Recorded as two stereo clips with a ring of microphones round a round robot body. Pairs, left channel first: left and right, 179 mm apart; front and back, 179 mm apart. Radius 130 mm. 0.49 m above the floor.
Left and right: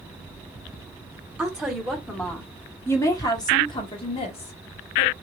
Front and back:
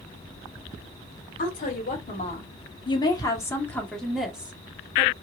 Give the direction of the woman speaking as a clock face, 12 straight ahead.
12 o'clock.